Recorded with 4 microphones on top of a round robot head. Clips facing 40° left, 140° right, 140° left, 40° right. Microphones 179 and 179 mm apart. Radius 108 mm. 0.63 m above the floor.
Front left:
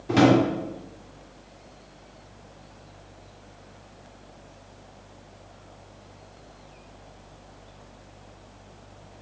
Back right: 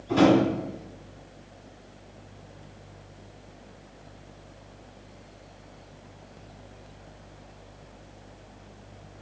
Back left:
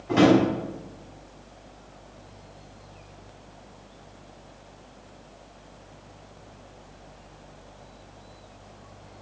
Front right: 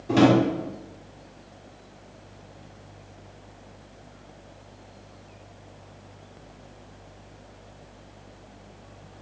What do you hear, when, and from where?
0.1 s a drawer: 15° left, 1.5 m